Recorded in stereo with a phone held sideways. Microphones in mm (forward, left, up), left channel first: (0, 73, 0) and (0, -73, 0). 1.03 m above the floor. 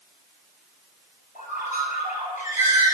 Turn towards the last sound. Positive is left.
turn(degrees=70)  # may be behind; listen again after turning